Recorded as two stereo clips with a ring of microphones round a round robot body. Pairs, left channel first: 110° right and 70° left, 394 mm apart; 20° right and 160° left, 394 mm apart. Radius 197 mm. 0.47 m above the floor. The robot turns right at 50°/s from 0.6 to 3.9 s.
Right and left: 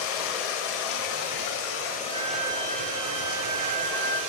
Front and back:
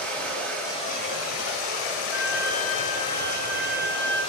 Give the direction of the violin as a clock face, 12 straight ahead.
11 o'clock.